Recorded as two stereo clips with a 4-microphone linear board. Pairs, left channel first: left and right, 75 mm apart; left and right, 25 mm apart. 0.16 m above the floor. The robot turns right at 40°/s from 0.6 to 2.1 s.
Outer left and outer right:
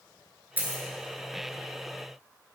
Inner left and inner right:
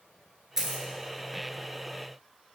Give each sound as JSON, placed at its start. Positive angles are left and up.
{"t": 0.6, "sound": "a dropped coin", "side_deg": -25, "distance_m": 0.6}